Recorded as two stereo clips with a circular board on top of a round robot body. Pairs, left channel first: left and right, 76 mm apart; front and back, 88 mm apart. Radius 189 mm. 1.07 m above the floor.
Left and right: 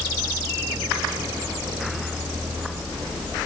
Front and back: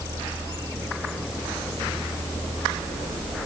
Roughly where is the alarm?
I don't hear an alarm.